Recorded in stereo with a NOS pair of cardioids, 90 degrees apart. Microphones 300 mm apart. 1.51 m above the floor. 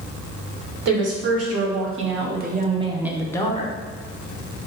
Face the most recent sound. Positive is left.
turn(degrees=30)